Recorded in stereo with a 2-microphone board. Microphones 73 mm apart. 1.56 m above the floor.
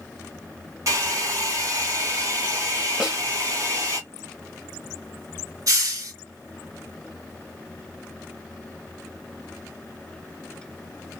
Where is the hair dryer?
50° right (ahead or behind), 2 m.